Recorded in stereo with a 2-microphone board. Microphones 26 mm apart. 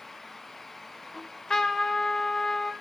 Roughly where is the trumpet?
Left.